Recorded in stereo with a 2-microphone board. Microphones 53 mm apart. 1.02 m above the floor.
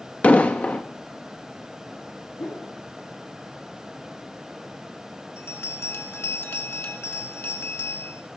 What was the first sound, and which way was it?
An explosion, 25° left (ahead or behind).